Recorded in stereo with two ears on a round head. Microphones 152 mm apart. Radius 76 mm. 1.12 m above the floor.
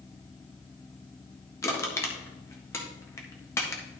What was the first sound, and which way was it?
Crushing, 15° left (ahead or behind).